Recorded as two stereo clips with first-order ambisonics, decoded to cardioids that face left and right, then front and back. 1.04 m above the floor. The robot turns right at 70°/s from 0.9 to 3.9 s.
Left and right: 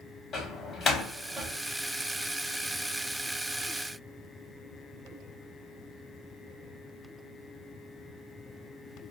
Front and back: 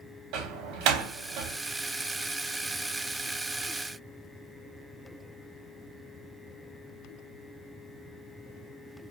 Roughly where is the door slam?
Behind.